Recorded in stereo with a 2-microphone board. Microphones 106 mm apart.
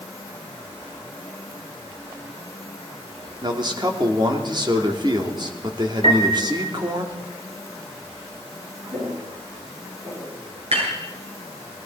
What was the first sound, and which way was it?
A man speaking, 45° right (ahead or behind).